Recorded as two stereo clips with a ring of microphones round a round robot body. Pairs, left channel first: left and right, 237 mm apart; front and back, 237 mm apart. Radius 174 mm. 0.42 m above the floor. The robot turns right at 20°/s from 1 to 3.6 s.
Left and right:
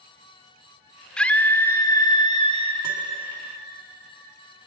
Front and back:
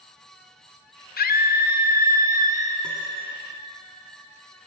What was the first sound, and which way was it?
A scream, 5° left.